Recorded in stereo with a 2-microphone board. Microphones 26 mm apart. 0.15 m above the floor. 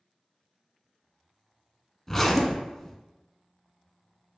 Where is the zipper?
10° left (ahead or behind), 0.6 m.